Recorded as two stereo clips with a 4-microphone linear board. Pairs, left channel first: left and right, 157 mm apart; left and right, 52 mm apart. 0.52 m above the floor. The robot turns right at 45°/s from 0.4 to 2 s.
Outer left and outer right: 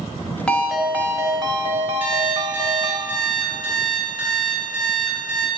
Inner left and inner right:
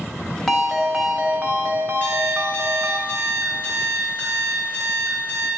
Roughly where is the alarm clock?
Right.